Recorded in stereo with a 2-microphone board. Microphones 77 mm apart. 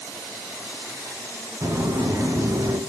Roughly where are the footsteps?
Right.